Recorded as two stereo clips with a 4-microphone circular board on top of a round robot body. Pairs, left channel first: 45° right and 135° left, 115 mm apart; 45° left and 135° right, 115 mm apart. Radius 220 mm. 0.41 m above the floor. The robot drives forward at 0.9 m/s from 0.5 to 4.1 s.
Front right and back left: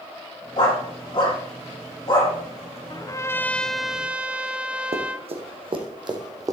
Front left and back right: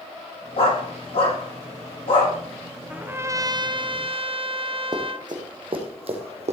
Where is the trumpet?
60° right, 1.1 m; by 5.3 s 145° right, 1.3 m.